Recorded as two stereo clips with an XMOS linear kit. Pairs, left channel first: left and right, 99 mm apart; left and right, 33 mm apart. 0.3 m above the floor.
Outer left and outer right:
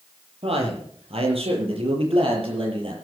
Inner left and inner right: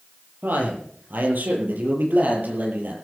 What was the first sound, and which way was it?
A man speaking, 75° right (ahead or behind).